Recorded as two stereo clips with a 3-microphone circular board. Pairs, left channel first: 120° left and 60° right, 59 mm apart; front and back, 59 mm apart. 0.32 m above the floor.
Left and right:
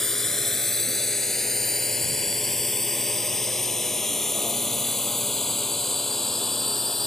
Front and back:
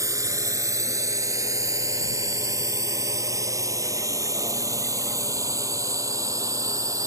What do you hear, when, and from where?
0.0 s a drone: 155° right